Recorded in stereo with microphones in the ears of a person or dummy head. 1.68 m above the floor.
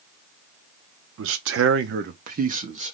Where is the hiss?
No hiss in this recording.